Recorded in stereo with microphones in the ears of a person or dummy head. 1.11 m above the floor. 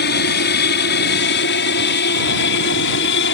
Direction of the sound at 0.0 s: 55° left (ahead or behind).